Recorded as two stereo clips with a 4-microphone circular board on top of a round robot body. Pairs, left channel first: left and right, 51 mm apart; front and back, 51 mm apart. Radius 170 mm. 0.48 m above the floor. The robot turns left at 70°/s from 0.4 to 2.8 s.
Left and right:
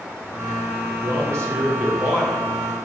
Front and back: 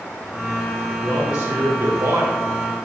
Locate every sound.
1.0 s a man speaking: 90° right, 2.5 m; by 2.4 s straight behind, 2.5 m